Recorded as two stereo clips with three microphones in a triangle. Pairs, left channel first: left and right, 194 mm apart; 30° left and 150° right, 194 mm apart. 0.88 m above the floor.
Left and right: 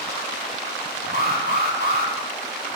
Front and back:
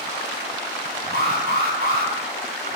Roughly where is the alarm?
Behind right.